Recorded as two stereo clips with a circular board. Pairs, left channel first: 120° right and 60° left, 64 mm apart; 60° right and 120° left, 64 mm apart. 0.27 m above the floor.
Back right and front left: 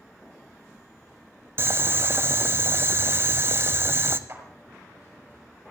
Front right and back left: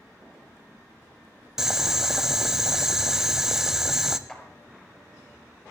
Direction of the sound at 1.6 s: 40° left.